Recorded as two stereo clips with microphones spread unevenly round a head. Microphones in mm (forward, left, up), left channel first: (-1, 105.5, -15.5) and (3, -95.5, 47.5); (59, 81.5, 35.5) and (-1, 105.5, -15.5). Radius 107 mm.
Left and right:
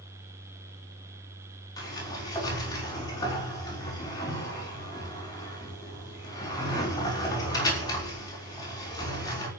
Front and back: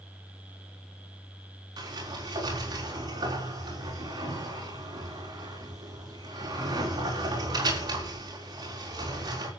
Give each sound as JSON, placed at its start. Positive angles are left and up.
{"t": 1.8, "sound": "a sliding door", "azimuth_deg": 165, "distance_m": 5.5}